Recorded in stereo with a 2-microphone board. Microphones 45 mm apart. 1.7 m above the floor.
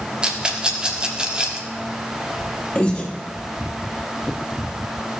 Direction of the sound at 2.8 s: 20° left (ahead or behind).